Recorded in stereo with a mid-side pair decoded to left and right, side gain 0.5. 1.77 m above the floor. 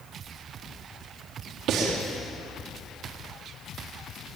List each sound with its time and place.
1.7 s breathing: 65° right, 4.5 m